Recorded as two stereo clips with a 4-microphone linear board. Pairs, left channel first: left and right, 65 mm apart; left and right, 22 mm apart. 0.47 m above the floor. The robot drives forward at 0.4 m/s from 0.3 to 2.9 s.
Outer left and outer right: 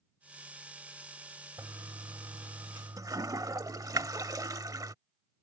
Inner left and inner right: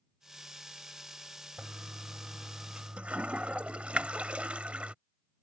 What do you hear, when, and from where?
1.6 s a toilet flushing: 70° right (ahead or behind)